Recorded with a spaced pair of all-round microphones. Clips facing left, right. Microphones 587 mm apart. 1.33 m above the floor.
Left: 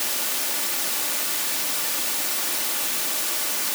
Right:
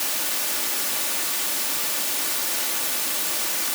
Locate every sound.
Only background noise.